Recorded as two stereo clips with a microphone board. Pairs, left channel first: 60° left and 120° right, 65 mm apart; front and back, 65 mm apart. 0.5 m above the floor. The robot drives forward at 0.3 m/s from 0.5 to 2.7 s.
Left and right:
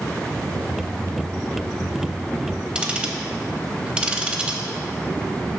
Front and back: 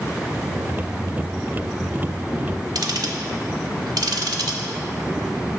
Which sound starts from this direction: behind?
Ticking, at 2.8 s.